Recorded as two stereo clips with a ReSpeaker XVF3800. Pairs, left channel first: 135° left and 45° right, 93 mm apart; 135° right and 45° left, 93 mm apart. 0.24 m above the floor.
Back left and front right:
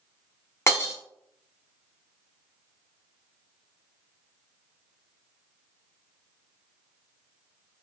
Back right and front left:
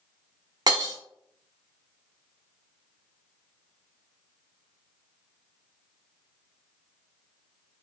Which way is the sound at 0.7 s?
80° left.